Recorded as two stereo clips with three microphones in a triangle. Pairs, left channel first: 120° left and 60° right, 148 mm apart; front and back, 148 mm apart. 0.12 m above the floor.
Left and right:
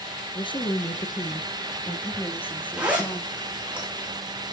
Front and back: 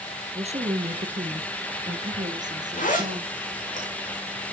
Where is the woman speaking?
160° left, 2 m; by 3.3 s 160° right, 3.5 m.